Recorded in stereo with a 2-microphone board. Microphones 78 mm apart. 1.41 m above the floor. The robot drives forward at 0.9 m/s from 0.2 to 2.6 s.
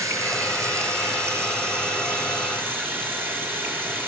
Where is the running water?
40° right (ahead or behind), 4.5 m; by 4.1 s 25° right (ahead or behind), 6 m.